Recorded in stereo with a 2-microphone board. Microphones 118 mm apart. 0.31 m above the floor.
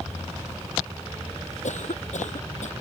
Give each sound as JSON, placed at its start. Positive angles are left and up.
{"t": 1.6, "sound": "a cough", "side_deg": 80}